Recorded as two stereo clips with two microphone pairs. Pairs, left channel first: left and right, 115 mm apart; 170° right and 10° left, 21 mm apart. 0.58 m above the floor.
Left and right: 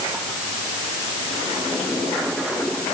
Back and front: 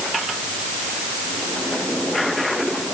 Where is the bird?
No bird in this recording.